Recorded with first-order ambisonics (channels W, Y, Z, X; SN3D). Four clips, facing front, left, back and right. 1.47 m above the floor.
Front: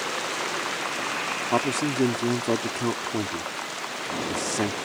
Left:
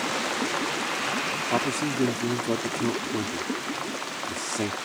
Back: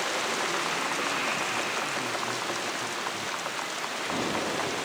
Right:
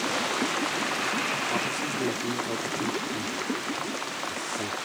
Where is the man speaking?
25° left.